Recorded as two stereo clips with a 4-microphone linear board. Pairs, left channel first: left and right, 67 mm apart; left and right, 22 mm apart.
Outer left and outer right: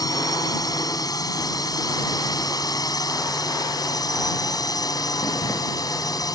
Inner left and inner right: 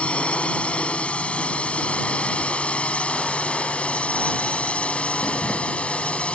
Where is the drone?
70° left (ahead or behind).